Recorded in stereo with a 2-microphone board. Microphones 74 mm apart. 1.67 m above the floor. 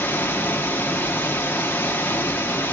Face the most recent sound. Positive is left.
turn(degrees=25)  # may be behind; listen again after turning